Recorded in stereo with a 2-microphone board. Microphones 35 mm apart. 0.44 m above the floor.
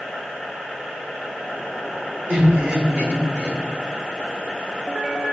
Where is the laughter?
70° right (ahead or behind), 3.5 m.